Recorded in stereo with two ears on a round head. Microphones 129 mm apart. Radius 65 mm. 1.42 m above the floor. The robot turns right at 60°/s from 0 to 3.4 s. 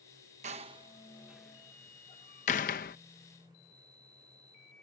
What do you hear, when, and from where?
0.4 s a door slam: 55° right (ahead or behind); by 3.0 s 70° left (ahead or behind)